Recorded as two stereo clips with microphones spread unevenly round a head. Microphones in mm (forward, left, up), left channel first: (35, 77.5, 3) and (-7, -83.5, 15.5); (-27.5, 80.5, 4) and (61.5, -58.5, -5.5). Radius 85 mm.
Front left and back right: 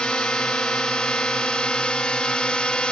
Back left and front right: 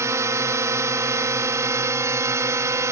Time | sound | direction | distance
0.0 | a drone | straight ahead | ?